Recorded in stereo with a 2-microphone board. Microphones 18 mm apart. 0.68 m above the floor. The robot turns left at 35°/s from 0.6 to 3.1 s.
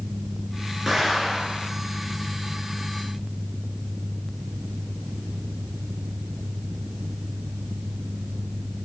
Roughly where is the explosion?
Centre.